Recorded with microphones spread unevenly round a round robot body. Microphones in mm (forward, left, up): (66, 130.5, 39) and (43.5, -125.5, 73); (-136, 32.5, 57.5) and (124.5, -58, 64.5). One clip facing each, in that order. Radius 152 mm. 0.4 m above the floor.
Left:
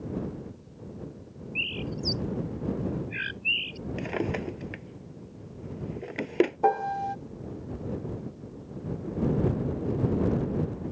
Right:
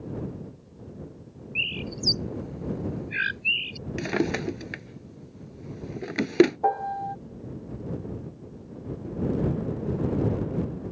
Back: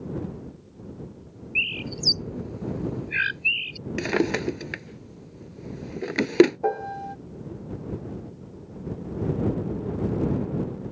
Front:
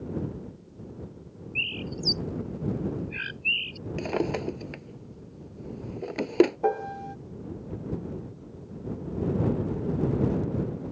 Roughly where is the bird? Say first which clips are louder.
Left 1 dB, even; behind right.